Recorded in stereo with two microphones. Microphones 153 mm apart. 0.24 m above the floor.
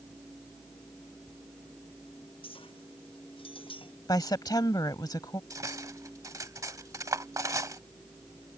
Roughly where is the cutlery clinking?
Right.